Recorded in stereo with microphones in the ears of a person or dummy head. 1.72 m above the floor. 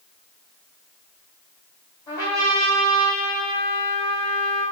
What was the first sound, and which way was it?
A trumpet, 20° left (ahead or behind).